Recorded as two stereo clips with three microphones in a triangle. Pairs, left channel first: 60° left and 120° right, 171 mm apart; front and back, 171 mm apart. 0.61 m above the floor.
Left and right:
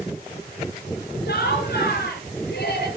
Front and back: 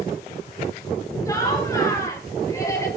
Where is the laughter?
70° left, 9.5 m.